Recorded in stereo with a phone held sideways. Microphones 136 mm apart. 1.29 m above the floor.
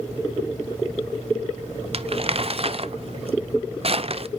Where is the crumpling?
50° right (ahead or behind), 0.5 m.